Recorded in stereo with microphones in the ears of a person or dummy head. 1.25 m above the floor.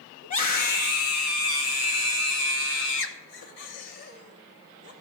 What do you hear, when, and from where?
0.2 s a scream: 40° left (ahead or behind), 2 m; by 4.9 s 60° left (ahead or behind), 3.5 m